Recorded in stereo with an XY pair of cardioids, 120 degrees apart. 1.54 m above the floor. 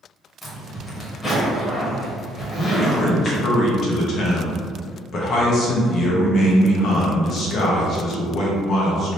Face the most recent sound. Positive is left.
turn(degrees=55)